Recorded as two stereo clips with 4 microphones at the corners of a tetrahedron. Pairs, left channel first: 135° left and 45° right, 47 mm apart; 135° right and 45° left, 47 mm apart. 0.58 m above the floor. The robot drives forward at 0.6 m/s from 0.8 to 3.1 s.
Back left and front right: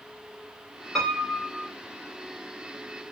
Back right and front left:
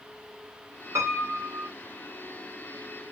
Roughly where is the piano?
Ahead left.